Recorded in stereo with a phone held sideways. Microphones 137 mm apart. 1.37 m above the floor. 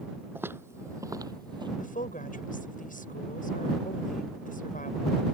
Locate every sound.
0.3 s footsteps: 15° right (ahead or behind); by 1.7 s 35° right (ahead or behind)
1.8 s a woman speaking: 85° left